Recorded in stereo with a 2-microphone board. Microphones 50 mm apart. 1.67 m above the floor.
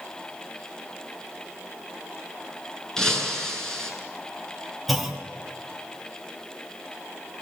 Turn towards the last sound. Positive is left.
turn(degrees=-5)  # may be behind; listen again after turning